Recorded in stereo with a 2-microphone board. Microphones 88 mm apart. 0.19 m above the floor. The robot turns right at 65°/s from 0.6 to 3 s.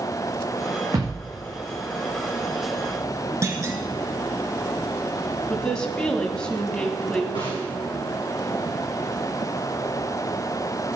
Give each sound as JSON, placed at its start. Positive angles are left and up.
{"t": 0.9, "sound": "a thud", "side_deg": -40, "distance_m": 7.0}
{"t": 3.4, "sound": "a clunk", "side_deg": -35, "distance_m": 1.5}
{"t": 5.5, "sound": "a woman speaking", "side_deg": 10, "distance_m": 1.5}
{"t": 7.3, "sound": "a snare drum", "side_deg": 65, "distance_m": 5.5}